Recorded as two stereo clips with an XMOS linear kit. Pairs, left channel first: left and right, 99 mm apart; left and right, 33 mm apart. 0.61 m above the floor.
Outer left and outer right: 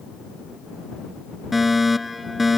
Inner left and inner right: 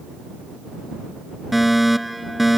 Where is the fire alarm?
Centre (ahead or behind).